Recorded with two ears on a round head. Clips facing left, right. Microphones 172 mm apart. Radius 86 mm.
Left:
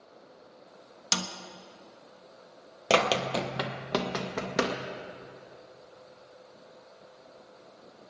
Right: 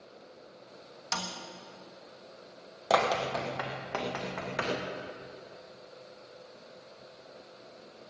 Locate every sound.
1.1 s a snare drum: 40° left (ahead or behind), 1.1 m
2.9 s running footsteps: 35° left (ahead or behind), 1.1 m; by 4.8 s 55° left (ahead or behind), 2 m